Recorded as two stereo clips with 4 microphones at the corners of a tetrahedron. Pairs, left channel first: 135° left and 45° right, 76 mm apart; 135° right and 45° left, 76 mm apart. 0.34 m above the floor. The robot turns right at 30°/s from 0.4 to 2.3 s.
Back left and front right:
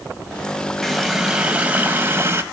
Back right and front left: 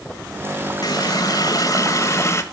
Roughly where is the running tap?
Behind right.